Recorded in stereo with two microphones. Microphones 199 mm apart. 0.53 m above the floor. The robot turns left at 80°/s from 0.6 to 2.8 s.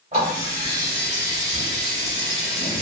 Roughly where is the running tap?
Behind right.